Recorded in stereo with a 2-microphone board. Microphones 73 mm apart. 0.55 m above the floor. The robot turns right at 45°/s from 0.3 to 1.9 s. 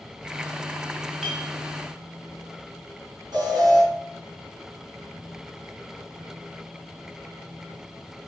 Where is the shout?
I don't hear a shout.